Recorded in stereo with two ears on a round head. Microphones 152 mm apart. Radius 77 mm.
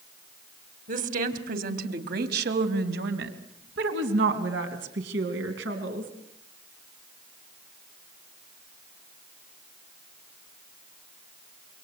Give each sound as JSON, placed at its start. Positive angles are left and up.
{"t": 0.9, "sound": "a woman speaking", "side_deg": -50, "distance_m": 2.5}